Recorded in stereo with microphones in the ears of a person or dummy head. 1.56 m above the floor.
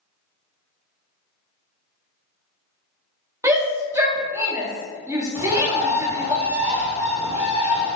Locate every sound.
3.4 s a shout: 15° right (ahead or behind), 0.5 m
5.3 s a bird: 10° right (ahead or behind), 0.8 m